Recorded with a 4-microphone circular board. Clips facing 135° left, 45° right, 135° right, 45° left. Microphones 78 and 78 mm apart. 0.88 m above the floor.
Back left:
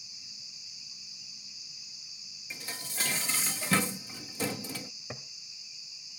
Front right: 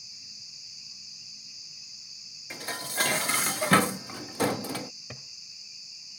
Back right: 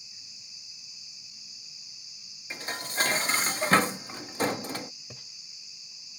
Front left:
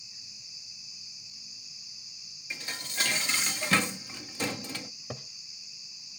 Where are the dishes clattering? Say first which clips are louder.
Front right 8 dB, back right 4 dB; 80° right.